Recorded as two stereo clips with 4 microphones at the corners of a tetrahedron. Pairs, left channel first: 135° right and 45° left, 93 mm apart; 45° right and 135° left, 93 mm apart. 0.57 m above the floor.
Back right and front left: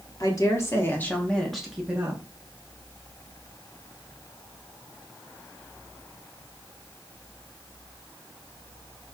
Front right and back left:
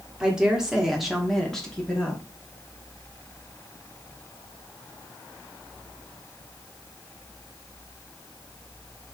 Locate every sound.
0.2 s a woman speaking: 150° right, 1.5 m; by 2.2 s 15° left, 1.2 m